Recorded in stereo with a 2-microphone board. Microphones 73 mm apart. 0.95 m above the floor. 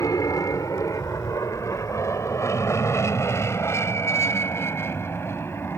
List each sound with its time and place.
0.0 s an aircraft: 50° left (ahead or behind); by 5.8 s 35° left (ahead or behind)